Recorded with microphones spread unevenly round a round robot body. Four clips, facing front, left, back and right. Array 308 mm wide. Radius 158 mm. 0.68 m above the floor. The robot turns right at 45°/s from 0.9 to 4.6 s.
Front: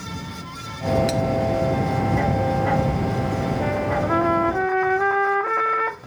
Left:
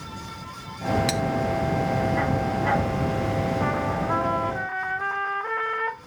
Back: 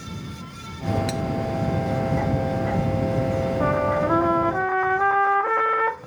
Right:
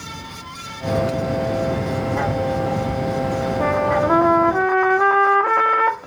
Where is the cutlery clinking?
80° left; by 1.2 s 85° left.